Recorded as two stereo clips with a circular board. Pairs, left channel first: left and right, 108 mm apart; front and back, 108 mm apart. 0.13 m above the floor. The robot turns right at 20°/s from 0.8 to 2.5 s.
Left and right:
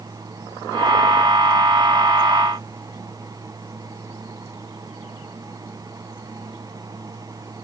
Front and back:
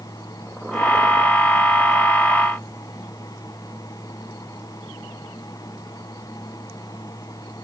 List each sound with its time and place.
Only background noise.